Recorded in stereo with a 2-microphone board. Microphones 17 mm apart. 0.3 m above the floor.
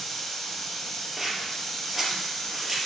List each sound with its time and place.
0.0 s running water: 25° left (ahead or behind), 3 m
1.2 s scissors: 5° right (ahead or behind), 3 m